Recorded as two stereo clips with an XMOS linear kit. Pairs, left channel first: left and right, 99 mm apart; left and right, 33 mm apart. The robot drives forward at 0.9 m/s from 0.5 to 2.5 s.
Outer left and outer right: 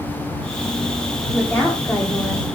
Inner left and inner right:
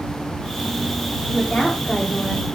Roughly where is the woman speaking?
Left.